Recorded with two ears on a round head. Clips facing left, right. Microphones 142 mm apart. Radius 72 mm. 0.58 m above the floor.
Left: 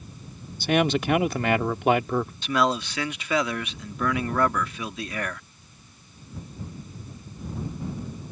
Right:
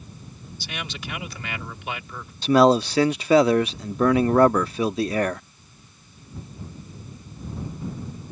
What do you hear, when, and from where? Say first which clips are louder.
0.6 s a man speaking: left 15 dB; 45° left (ahead or behind)
2.4 s a man speaking: right 12 dB; 30° right (ahead or behind)